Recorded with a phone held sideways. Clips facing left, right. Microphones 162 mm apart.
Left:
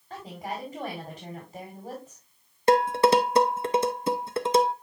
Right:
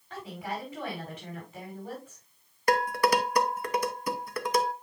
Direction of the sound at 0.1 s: 30° left (ahead or behind).